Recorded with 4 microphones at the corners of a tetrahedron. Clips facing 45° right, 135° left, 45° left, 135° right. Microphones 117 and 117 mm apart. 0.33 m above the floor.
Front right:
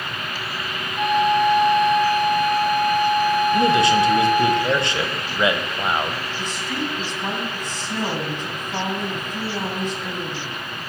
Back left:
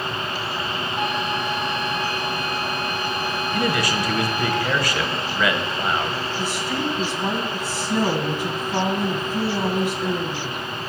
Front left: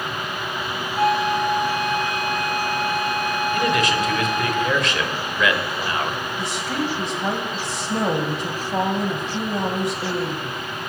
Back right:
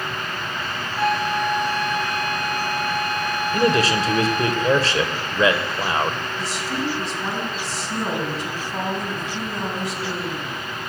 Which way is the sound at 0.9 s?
90° left.